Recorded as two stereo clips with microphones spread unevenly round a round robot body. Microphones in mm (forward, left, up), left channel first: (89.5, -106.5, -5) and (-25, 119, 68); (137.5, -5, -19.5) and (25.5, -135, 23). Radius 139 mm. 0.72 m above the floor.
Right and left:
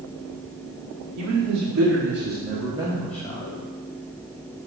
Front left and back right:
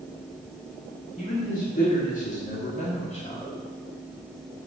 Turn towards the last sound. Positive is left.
turn(degrees=-5)